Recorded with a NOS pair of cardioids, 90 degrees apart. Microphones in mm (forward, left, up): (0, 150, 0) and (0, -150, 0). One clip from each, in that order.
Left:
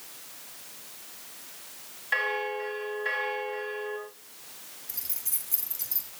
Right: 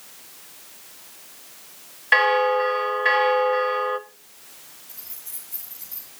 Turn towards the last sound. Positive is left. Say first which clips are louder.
# left 6 dB
turn(degrees=65)